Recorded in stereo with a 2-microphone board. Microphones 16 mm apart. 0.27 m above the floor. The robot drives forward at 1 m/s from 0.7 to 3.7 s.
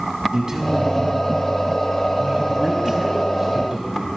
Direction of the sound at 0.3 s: 35° right (ahead or behind).